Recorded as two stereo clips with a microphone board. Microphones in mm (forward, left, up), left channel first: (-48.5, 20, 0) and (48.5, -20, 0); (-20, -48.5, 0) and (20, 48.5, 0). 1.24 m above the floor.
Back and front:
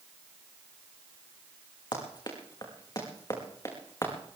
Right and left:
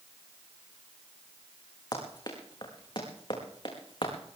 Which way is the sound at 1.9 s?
160° right.